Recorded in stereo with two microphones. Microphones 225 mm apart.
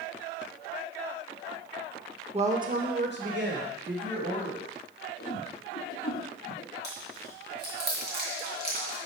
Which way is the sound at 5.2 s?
50° left (ahead or behind).